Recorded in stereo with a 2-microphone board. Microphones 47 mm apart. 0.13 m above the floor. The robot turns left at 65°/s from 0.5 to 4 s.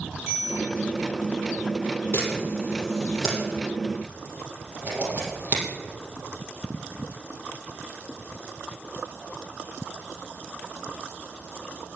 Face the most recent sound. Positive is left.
turn(degrees=-45)  # may be behind; listen again after turning